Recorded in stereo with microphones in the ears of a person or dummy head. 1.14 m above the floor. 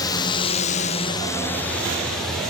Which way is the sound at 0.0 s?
25° left (ahead or behind).